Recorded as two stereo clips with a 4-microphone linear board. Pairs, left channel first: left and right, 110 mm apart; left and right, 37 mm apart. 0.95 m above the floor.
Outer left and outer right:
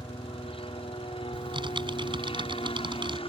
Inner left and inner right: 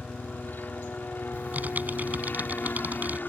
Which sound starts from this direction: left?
A helicopter, at 0.0 s.